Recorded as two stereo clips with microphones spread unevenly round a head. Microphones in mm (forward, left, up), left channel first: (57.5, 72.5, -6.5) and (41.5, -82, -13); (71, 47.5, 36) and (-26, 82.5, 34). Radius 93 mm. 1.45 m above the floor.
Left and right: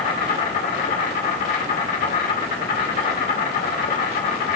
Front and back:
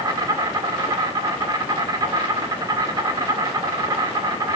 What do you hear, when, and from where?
0.0 s an insect: 115° left, 1.8 m